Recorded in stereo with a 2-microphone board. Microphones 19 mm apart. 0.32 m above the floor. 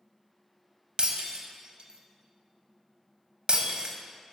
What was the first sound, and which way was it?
Breaking glass, 55° right (ahead or behind).